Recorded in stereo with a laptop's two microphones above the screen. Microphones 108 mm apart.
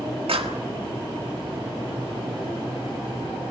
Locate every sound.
0.3 s a clap: 70° right (ahead or behind), 1.5 m